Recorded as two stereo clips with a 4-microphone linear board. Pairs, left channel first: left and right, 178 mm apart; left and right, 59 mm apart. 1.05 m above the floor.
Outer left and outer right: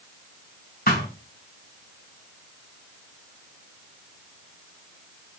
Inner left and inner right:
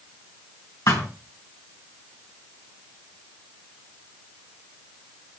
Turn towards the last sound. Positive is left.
turn(degrees=55)  # may be behind; listen again after turning